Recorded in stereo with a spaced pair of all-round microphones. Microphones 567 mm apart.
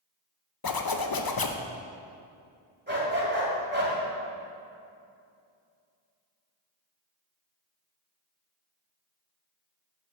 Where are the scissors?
I don't hear scissors.